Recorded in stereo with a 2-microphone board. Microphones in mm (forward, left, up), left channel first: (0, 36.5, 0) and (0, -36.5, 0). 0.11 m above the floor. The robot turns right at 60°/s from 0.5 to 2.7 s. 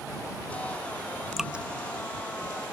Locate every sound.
1.4 s dripping: centre (ahead or behind); by 1.6 s 20° right (ahead or behind)